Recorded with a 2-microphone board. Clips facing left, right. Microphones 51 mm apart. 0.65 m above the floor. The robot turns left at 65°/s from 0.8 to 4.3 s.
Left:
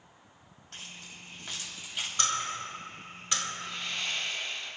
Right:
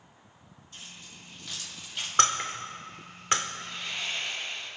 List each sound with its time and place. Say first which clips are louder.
0.7 s keys jangling: left 2 dB; 75° left (ahead or behind), 3 m; by 2.1 s 5° right (ahead or behind), 3 m
2.2 s breaking glass: right 7 dB; 60° right (ahead or behind), 1.1 m; by 3.4 s 30° right (ahead or behind), 1.1 m
3.6 s sawing: even; 10° left, 4.5 m; by 4.7 s 35° right, 4.5 m